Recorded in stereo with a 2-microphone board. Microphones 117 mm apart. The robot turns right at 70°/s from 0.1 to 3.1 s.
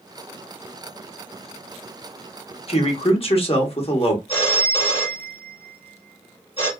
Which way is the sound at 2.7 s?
55° left (ahead or behind).